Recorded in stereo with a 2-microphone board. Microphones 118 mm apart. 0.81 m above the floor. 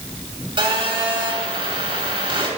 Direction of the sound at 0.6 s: 45° right (ahead or behind).